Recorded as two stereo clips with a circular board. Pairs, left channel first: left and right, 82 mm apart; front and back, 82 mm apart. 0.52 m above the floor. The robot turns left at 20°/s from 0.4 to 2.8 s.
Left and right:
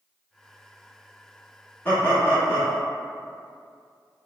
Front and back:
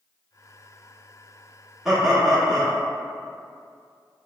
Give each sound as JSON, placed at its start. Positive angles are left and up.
{"t": 1.9, "sound": "laughter", "azimuth_deg": 95, "distance_m": 0.8}